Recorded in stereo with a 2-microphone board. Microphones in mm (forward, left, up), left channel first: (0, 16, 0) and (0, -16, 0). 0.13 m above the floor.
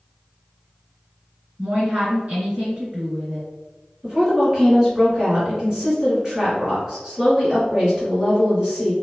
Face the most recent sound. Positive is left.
turn(degrees=-20)  # may be behind; listen again after turning